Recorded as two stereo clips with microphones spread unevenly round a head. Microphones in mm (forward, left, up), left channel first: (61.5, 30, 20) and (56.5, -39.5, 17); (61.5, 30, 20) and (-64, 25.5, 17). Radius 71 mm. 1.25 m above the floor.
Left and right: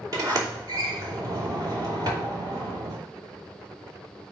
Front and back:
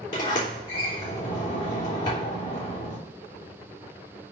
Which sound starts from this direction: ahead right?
A sliding door, at 0.1 s.